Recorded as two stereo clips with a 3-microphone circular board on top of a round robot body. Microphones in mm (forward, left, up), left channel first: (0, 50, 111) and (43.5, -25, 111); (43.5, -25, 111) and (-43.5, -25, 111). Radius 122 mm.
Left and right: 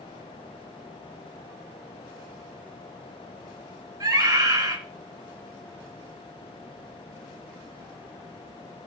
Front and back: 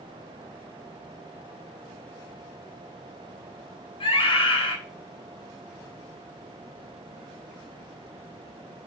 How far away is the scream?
About 2.5 m.